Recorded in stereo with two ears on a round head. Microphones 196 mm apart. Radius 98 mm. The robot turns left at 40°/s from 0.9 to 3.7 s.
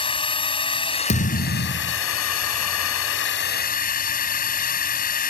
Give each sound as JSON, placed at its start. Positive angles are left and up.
{"t": 0.0, "sound": "a drone", "azimuth_deg": 155}
{"t": 1.1, "sound": "a thud", "azimuth_deg": 140}